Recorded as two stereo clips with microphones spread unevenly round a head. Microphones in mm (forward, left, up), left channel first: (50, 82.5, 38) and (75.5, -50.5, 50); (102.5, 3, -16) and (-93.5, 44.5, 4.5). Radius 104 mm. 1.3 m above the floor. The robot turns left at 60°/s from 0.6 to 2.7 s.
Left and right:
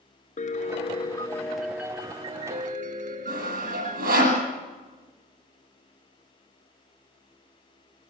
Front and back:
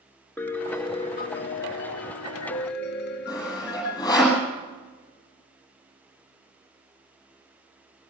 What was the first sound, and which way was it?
A piano, 70° left.